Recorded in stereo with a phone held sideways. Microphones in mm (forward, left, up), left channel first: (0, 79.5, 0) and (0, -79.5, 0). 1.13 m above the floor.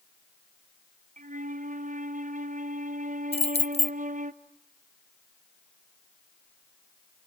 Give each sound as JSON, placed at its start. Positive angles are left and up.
{"t": 1.2, "sound": "a flute", "side_deg": -55, "distance_m": 0.8}
{"t": 3.3, "sound": "keys jangling", "side_deg": 40, "distance_m": 0.6}